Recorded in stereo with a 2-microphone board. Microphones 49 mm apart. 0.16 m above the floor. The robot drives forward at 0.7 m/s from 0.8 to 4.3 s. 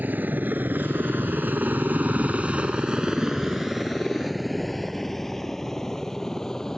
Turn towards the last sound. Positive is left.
turn(degrees=10)  # may be behind; listen again after turning